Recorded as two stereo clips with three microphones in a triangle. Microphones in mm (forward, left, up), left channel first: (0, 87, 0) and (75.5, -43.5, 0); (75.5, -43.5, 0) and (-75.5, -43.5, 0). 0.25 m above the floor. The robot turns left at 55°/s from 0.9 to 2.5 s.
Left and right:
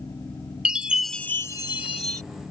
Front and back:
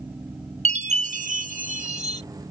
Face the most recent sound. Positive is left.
turn(degrees=130)